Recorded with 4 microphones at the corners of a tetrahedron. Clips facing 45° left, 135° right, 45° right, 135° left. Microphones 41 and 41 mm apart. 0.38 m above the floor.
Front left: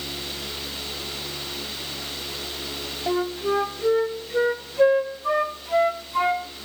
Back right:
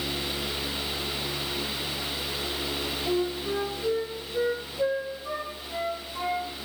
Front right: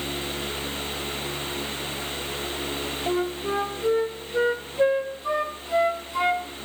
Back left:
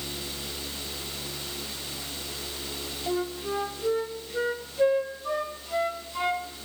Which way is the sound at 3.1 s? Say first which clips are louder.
Front left 5 dB, front right 3 dB; 25° left.